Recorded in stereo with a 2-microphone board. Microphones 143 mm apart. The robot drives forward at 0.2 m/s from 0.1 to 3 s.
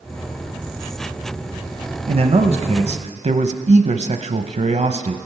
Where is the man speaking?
45° right (ahead or behind), 0.8 m; by 5.2 s 50° right (ahead or behind), 0.7 m.